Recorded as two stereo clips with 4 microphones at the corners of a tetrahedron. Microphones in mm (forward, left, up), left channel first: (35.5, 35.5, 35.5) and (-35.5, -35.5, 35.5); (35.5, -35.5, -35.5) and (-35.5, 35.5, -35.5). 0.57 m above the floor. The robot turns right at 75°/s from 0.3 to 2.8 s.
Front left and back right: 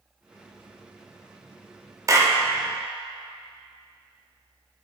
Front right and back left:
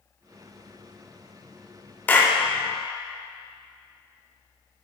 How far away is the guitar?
I don't hear a guitar.